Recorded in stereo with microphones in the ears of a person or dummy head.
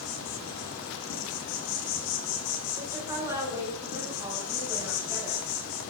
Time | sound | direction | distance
0.0 | an insect | 80° left | 1.9 m
2.8 | a woman speaking | 20° right (ahead or behind) | 5 m